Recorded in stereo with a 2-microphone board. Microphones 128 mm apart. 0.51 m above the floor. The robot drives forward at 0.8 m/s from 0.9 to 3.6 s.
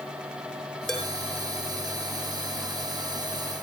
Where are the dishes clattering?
5° left (ahead or behind), 7 m.